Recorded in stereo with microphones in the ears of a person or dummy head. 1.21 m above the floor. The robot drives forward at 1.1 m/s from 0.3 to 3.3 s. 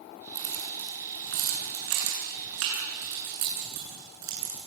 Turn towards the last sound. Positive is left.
turn(degrees=-65)  # may be behind; listen again after turning